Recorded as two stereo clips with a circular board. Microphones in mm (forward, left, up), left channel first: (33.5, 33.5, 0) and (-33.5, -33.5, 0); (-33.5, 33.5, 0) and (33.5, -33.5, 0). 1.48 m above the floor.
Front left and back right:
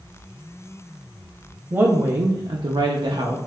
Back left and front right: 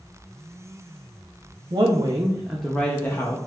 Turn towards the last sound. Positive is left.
turn(degrees=-170)